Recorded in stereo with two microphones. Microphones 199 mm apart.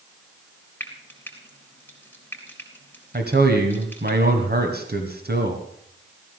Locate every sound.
0.8 s frying: 10° left (ahead or behind), 3.5 m
3.1 s a man speaking: 55° right (ahead or behind), 1.9 m